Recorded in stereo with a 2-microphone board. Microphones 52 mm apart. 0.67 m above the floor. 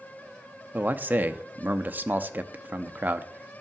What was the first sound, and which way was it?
A man speaking, 35° right (ahead or behind).